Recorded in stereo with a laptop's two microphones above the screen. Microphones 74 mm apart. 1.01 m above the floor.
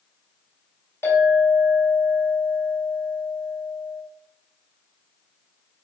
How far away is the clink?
About 3 m.